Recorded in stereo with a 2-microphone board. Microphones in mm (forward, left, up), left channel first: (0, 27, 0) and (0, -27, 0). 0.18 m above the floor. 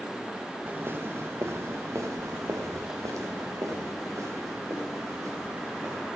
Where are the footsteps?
40° right (ahead or behind), 1.6 m; by 6.1 s 75° right (ahead or behind), 4.5 m.